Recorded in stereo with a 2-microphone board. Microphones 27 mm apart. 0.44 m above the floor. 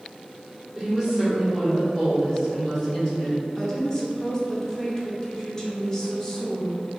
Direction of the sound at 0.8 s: 25° right (ahead or behind).